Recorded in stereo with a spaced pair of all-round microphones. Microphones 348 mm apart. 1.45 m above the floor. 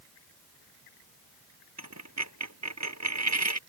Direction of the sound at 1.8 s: 50° right (ahead or behind).